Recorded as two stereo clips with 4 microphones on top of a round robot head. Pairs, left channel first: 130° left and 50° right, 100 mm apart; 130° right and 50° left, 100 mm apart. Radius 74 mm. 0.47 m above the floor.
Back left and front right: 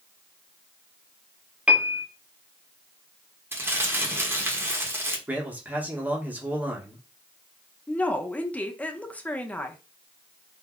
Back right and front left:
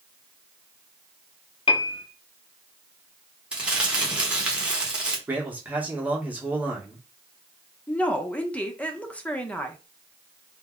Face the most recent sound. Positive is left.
turn(degrees=180)